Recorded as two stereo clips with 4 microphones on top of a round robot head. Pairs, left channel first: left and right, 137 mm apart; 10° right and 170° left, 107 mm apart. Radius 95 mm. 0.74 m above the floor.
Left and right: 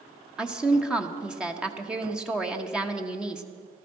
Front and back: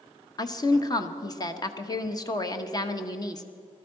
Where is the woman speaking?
10° right, 1.0 m.